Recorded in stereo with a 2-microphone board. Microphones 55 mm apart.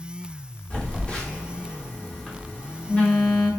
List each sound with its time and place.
0.7 s a phone buzzing: 15° left (ahead or behind), 0.9 m